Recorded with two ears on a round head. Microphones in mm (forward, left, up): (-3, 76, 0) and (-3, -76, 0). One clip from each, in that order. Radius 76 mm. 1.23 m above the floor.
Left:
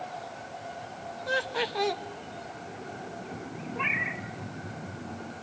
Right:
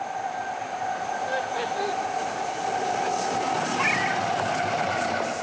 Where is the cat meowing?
30° right (ahead or behind), 1.7 m.